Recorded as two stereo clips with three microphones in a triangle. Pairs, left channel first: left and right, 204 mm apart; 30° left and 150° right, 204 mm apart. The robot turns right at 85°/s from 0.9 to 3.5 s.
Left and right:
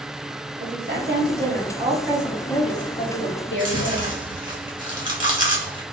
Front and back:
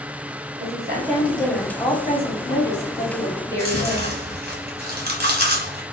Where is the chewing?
150° right, 1.5 m.